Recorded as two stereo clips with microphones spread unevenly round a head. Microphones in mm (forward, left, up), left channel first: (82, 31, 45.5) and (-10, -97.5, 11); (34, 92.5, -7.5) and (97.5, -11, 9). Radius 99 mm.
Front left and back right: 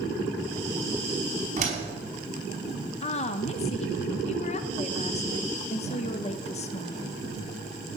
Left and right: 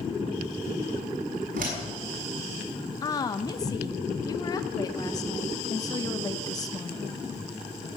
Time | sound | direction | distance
1.6 | a door slam | 80° right | 5.5 m
3.0 | a woman speaking | 95° left | 0.8 m